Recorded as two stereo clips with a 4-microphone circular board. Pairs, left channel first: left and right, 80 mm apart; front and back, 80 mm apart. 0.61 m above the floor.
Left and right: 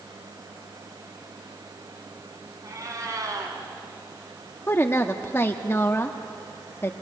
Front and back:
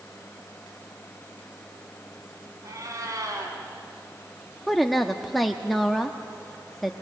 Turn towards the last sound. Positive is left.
turn(degrees=85)